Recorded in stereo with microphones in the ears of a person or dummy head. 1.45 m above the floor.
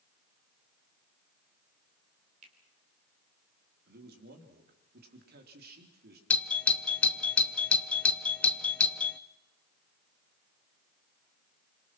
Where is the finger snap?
35° right (ahead or behind), 4 m.